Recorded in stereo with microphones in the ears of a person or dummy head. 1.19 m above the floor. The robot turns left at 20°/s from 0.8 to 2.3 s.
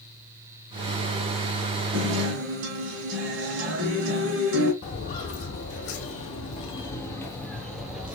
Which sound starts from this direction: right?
A guitar, at 1.9 s.